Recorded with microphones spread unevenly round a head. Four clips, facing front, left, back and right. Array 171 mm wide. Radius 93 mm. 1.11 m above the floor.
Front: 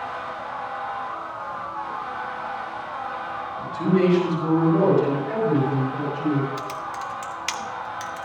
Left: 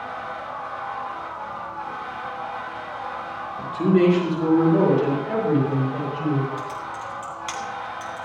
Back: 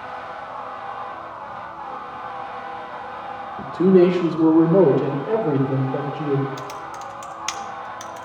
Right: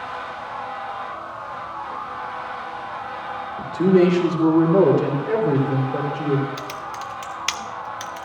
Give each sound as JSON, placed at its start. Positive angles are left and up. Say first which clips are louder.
{"t": 3.6, "sound": "a man speaking", "louder": "right 3 dB, back 7 dB", "azimuth_deg": -155, "distance_m": 3.5}
{"t": 6.6, "sound": "typing on a keyboard", "louder": "even, front 1 dB", "azimuth_deg": -100, "distance_m": 0.7}